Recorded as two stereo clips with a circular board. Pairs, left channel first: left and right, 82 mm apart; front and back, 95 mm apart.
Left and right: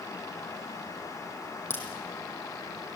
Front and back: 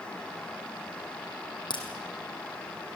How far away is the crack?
About 3.5 m.